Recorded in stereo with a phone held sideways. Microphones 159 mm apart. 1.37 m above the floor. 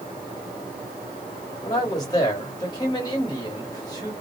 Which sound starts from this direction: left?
A man speaking, at 1.6 s.